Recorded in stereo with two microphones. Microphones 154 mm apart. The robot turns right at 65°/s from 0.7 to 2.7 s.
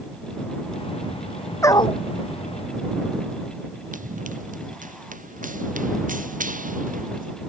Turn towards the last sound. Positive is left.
turn(degrees=-65)  # may be behind; listen again after turning